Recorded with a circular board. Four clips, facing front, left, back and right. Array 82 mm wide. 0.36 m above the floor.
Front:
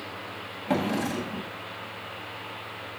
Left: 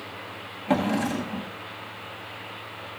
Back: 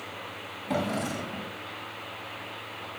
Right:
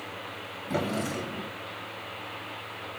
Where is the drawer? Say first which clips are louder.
Left 6 dB, front 3 dB; 70° left, 8 m.